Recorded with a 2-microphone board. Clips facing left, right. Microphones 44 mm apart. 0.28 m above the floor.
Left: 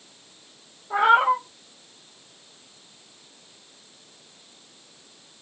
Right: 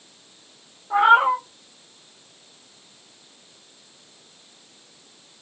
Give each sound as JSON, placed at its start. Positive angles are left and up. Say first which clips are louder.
{"t": 0.9, "sound": "a cat meowing", "louder": "right 2 dB", "side_deg": -25, "distance_m": 2.0}